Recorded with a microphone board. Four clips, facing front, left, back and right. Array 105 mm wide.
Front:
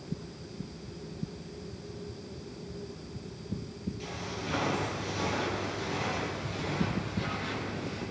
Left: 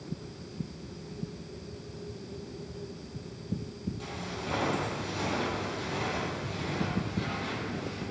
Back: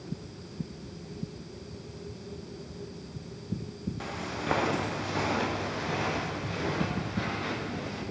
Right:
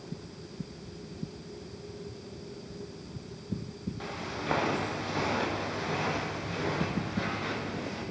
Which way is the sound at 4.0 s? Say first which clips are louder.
Right 1 dB, back 3 dB; 150° right.